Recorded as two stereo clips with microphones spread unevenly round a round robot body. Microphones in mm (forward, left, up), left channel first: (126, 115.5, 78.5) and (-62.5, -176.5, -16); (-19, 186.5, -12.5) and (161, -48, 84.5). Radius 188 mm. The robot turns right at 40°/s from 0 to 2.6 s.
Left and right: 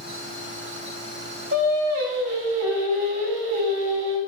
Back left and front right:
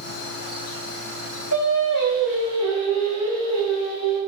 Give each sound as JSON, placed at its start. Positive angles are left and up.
{"t": 1.5, "sound": "singing", "azimuth_deg": 170, "distance_m": 4.0}